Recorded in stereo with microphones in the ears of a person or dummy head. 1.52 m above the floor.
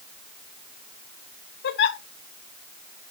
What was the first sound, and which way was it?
A giggle, 65° left (ahead or behind).